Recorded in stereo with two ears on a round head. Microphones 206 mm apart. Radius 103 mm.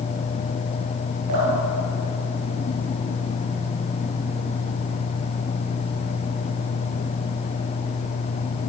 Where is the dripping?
85° right, 10 m.